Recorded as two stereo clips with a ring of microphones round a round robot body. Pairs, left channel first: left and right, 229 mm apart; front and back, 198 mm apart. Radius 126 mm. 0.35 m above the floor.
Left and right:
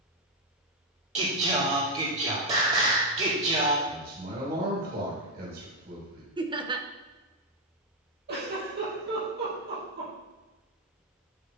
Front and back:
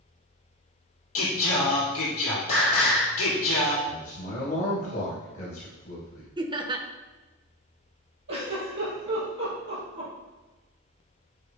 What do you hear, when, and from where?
1.1 s singing: 30° right, 3 m
3.9 s a man speaking: 50° right, 3 m
6.4 s laughter: 140° right, 0.9 m
8.3 s a giggle: 140° right, 3.5 m